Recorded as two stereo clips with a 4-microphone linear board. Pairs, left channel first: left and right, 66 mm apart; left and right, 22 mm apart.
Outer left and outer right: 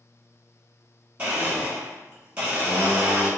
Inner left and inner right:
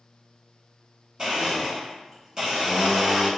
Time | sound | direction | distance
1.2 | a blender | 25° right (ahead or behind) | 1.9 m